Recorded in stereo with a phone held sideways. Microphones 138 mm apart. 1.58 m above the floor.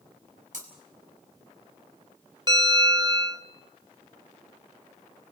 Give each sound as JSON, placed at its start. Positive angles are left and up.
{"t": 0.5, "sound": "breaking glass", "side_deg": -65, "distance_m": 5.0}
{"t": 2.5, "sound": "a bell", "side_deg": -30, "distance_m": 2.0}